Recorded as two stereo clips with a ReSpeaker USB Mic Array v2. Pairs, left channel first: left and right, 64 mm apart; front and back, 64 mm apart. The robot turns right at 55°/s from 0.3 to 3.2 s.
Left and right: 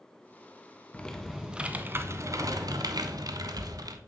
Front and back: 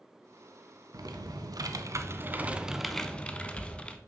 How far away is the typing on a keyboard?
About 0.6 m.